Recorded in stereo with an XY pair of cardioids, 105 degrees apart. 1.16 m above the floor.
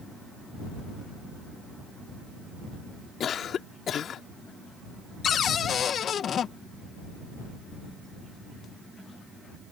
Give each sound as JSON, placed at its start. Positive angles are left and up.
{"t": 3.2, "sound": "a cough", "azimuth_deg": 55}
{"t": 5.2, "sound": "a cupboard door", "azimuth_deg": 55}